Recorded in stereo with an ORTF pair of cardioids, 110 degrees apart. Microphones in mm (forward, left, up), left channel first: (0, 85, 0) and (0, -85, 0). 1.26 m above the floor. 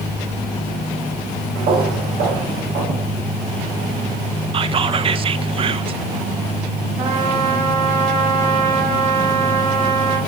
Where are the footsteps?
65° right, 5.5 m.